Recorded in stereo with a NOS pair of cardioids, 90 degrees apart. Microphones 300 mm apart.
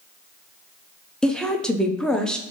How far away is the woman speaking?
About 0.7 m.